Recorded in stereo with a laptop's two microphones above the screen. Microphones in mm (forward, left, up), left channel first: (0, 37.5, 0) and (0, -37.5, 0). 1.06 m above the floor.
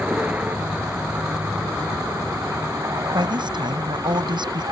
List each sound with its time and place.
0.0 s a vehicle: 20° right (ahead or behind); by 4.7 s 55° right (ahead or behind)
3.1 s a woman speaking: 85° right